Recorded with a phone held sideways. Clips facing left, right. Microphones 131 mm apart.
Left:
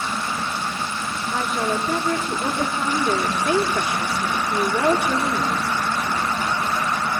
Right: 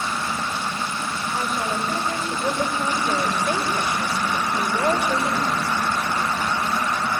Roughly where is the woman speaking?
Left.